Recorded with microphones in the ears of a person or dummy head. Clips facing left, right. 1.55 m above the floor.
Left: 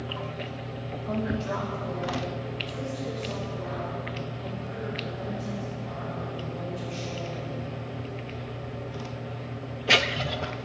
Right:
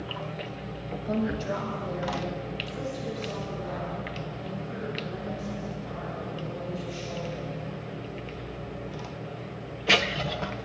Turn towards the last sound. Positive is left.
turn(degrees=-30)  # may be behind; listen again after turning